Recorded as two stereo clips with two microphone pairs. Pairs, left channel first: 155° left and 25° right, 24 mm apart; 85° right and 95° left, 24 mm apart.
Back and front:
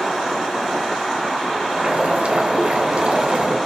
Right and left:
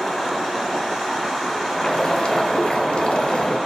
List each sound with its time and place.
1.7 s boiling: 50° right, 0.7 m